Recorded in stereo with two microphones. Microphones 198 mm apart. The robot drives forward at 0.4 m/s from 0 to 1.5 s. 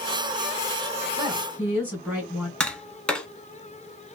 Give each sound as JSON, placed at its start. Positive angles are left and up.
{"t": 1.2, "sound": "a woman speaking", "side_deg": -10, "distance_m": 1.9}
{"t": 2.6, "sound": "tapping", "side_deg": 5, "distance_m": 0.7}